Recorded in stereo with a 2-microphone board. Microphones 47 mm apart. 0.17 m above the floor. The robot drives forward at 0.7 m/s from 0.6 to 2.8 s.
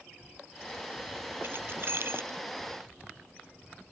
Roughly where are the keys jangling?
Right.